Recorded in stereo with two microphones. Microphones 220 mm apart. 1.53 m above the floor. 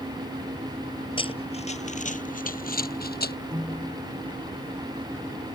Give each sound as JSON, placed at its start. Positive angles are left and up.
{"t": 1.2, "sound": "running footsteps", "side_deg": 25}
{"t": 3.5, "sound": "a piano", "side_deg": -20}